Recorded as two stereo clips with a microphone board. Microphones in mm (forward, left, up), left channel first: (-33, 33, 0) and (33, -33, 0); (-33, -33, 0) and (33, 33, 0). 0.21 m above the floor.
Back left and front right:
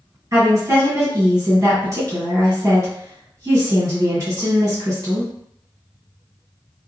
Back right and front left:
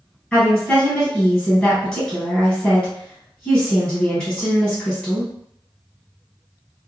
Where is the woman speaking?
65° right, 1.9 m.